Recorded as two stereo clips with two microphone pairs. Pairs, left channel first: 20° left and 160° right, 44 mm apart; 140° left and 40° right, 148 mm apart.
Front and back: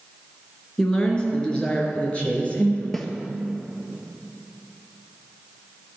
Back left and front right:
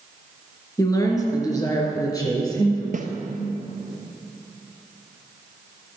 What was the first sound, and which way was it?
A woman speaking, 85° left.